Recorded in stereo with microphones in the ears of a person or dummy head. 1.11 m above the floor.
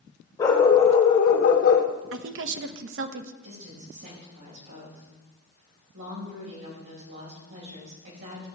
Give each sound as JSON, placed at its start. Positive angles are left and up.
{"t": 0.4, "sound": "a dog barking", "side_deg": 15, "distance_m": 2.0}
{"t": 2.1, "sound": "a woman speaking", "side_deg": -65, "distance_m": 0.8}
{"t": 3.4, "sound": "a woman speaking", "side_deg": -75, "distance_m": 4.5}